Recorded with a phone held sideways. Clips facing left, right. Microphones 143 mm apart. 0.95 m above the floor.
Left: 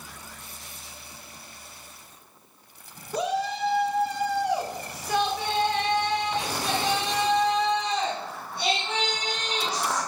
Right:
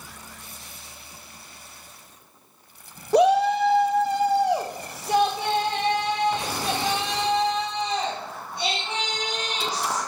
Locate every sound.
3.1 s a shout: 70° right (ahead or behind), 0.8 m; by 10.0 s 15° right (ahead or behind), 7 m